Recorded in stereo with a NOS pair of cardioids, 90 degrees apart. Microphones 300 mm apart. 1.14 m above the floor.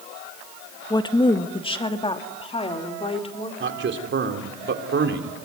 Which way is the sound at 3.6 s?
40° right.